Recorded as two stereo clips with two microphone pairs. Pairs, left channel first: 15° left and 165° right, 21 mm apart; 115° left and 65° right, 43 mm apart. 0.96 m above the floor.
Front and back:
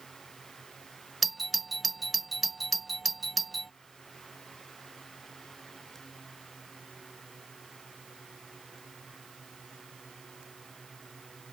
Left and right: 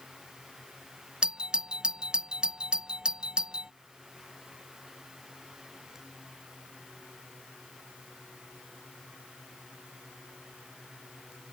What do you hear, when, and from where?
1.2 s a doorbell: 80° right